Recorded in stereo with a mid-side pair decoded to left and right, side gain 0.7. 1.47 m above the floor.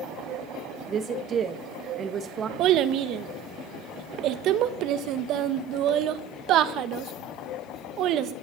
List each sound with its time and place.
0.9 s a woman speaking: 35° right, 1.8 m
2.6 s a child speaking: 55° right, 1.2 m